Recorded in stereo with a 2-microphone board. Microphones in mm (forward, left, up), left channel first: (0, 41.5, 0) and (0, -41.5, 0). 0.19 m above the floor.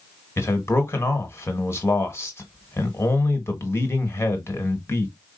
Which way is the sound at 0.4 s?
30° left (ahead or behind).